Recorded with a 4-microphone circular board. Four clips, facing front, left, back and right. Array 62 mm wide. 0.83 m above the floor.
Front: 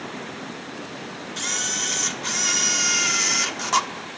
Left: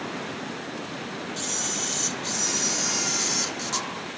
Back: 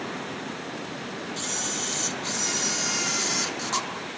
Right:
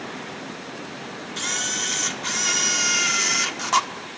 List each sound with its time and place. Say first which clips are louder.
1.4 s a camera shutter: right 3 dB, front 3 dB; 55° right, 1.3 m